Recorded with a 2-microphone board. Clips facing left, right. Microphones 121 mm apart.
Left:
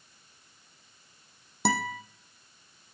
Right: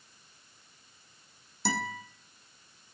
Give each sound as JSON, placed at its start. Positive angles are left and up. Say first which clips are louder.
{"t": 1.6, "sound": "a guitar", "louder": "left 4 dB", "side_deg": 65, "distance_m": 0.9}